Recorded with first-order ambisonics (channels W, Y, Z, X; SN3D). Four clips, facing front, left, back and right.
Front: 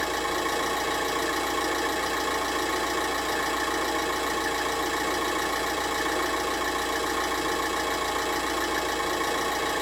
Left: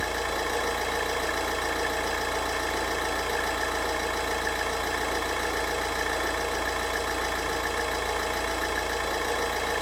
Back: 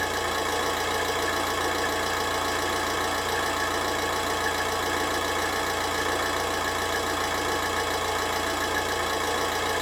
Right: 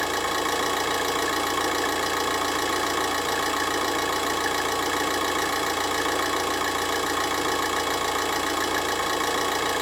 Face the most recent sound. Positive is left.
turn(degrees=-90)